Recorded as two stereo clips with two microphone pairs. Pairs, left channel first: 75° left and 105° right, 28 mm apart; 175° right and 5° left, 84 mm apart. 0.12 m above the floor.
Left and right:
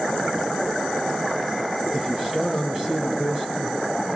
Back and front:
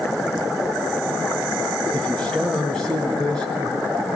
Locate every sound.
1.9 s a man speaking: 100° right, 1.5 m